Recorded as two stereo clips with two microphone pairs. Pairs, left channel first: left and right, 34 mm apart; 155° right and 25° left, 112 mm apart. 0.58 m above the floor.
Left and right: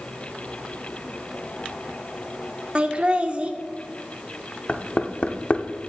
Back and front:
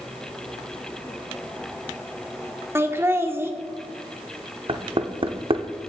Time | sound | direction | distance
2.8 | laughter | 40° right | 1.1 m
4.7 | knocking | 50° left | 0.8 m